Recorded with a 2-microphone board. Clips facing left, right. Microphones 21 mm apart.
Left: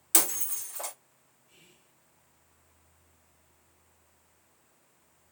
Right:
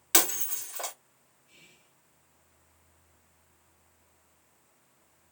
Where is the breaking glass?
30° right (ahead or behind), 1.5 m.